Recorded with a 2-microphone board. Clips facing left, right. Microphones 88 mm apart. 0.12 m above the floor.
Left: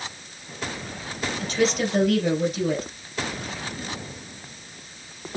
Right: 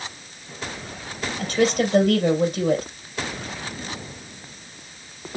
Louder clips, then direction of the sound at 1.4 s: Right 3 dB; 50° right (ahead or behind).